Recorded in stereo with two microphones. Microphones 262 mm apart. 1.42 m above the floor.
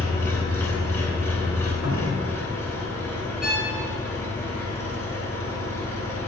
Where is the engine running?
10° left (ahead or behind), 3 m.